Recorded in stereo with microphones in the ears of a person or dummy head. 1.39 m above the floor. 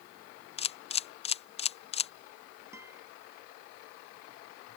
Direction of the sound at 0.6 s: 25° left (ahead or behind).